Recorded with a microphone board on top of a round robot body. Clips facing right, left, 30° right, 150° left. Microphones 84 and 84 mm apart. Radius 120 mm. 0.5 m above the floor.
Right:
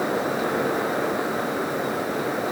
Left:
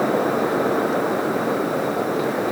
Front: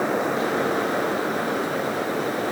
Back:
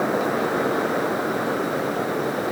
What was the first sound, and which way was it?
Only background noise.